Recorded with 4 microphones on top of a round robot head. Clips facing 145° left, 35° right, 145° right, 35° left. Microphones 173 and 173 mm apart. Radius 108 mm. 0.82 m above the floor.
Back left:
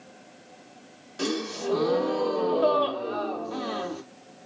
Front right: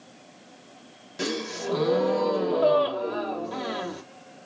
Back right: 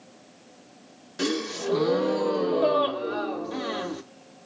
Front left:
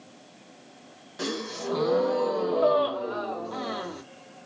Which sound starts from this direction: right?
A gasp, at 1.2 s.